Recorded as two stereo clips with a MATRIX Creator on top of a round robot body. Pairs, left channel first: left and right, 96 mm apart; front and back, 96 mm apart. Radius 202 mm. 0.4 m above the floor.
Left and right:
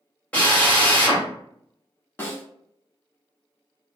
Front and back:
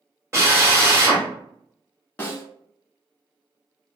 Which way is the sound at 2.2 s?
45° left.